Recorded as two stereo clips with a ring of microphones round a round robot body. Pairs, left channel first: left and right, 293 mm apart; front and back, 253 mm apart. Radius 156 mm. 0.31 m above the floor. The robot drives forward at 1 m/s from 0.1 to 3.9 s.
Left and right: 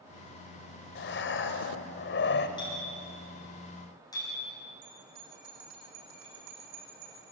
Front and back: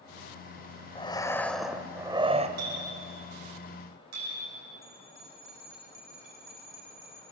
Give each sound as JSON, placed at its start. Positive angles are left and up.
{"t": 0.9, "sound": "breathing", "azimuth_deg": 60, "distance_m": 1.9}
{"t": 2.6, "sound": "a clink", "azimuth_deg": 165, "distance_m": 8.5}
{"t": 4.8, "sound": "a bell", "azimuth_deg": -100, "distance_m": 6.5}